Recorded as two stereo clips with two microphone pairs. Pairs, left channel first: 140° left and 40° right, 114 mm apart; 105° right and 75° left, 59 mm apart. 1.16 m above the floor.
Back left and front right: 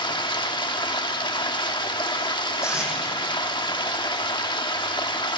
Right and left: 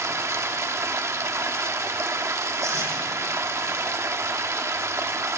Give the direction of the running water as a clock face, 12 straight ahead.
9 o'clock.